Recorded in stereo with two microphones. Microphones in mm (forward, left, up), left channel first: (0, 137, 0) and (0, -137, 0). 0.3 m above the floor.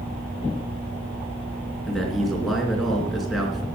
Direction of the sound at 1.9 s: Centre (ahead or behind).